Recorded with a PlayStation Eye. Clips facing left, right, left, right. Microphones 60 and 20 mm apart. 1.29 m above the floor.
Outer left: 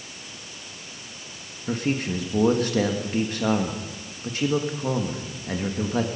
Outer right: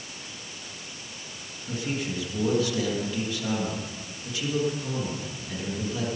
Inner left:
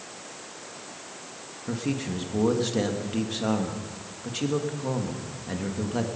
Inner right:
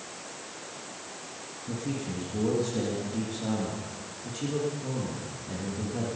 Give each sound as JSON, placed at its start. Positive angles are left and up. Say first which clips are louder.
{"t": 1.7, "sound": "a man speaking", "louder": "outer left 5 dB, inner left 4 dB", "side_deg": 50, "distance_m": 1.7}